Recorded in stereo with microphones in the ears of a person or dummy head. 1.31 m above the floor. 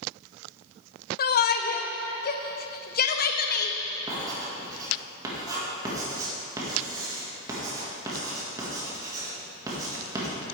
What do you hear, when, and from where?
1.2 s a shout: 50° left (ahead or behind), 0.6 m
4.1 s writing: 15° right (ahead or behind), 1.6 m